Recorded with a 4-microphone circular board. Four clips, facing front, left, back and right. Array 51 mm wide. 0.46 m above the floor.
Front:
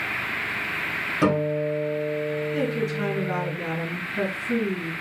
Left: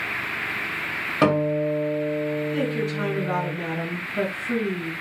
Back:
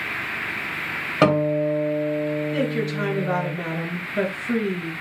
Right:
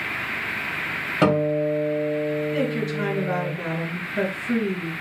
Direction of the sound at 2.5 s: 170° right.